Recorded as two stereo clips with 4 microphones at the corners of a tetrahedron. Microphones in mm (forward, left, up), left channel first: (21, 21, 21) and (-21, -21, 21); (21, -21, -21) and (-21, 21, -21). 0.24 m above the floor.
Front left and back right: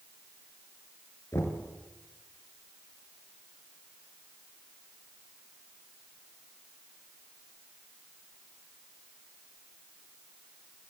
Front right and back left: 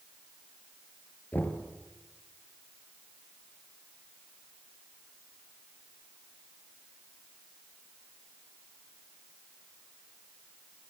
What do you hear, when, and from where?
1.3 s knocking: 10° left, 3 m